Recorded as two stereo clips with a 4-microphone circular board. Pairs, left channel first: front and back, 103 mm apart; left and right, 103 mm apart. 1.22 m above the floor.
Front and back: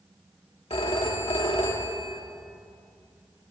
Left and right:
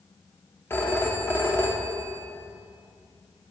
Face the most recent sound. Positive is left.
turn(degrees=25)